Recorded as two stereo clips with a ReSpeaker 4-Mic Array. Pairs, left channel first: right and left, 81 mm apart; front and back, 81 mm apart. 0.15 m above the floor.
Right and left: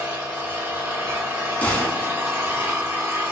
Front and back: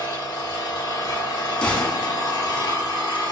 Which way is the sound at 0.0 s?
25° left.